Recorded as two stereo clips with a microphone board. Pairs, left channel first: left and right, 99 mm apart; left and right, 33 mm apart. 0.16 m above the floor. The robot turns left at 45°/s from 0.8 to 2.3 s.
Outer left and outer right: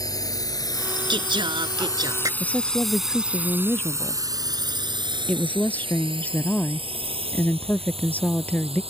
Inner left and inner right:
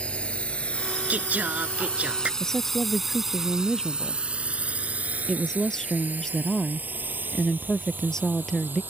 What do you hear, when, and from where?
0.0 s a drone: 40° left (ahead or behind); by 8.9 s 75° right (ahead or behind)
1.1 s singing: 80° right; by 2.3 s 130° right
2.4 s a woman speaking: 15° left (ahead or behind)